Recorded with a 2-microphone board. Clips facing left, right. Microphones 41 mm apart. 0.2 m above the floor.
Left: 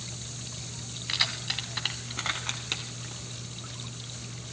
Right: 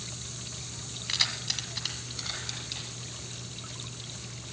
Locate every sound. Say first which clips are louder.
1.1 s keys jangling: left 2 dB; 10° left (ahead or behind), 1.2 m; by 3.2 s 55° left (ahead or behind), 1.9 m